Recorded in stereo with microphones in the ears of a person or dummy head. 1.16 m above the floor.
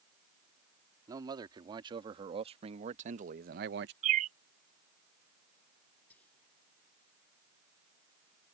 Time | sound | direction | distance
1.1 | a man speaking | 25° right (ahead or behind) | ?
4.0 | a bird | 45° right (ahead or behind) | ?
6.1 | whispering | 10° left (ahead or behind) | ?